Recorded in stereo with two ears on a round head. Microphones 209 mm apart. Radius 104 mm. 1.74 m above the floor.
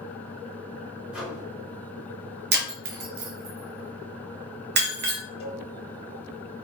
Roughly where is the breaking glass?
Right.